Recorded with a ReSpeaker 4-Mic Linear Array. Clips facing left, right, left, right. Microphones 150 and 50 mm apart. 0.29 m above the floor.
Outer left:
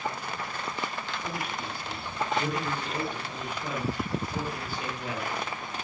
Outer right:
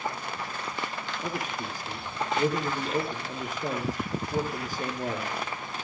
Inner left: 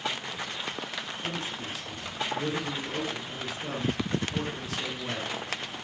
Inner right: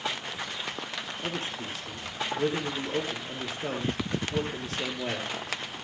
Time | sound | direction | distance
1.2 | a man speaking | 45° right (ahead or behind) | 6 m